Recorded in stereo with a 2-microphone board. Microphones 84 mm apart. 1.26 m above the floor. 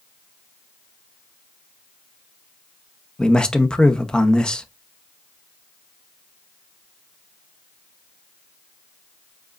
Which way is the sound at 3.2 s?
10° left (ahead or behind).